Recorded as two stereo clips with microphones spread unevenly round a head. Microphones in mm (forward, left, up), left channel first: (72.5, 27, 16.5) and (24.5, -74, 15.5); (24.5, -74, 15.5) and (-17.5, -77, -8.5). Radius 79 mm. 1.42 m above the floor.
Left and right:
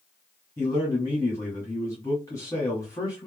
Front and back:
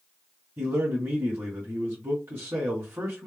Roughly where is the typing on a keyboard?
No typing on a keyboard in this recording.